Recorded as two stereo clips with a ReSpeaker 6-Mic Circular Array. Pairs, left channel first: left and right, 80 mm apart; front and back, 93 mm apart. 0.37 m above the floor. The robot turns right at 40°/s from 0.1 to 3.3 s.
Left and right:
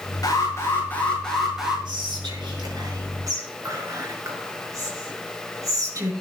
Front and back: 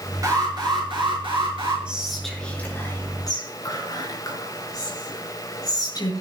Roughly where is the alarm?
Behind left.